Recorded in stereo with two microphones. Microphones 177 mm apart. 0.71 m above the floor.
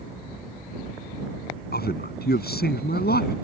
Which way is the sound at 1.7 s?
70° left (ahead or behind).